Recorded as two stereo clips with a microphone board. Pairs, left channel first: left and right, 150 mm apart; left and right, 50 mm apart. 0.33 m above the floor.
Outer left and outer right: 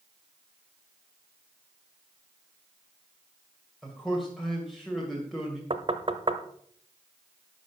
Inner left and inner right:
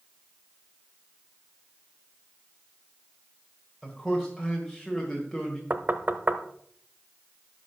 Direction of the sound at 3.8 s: Centre (ahead or behind).